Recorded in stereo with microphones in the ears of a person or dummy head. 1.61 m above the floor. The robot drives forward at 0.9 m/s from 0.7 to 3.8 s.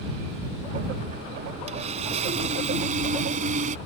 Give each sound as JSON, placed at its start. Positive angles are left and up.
{"t": 1.7, "sound": "sawing", "side_deg": -40}